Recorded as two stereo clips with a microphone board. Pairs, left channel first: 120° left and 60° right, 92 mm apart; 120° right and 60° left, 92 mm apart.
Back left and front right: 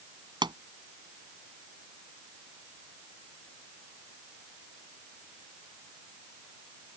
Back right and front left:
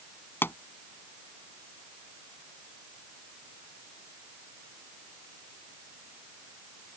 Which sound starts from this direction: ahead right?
A pop, at 0.4 s.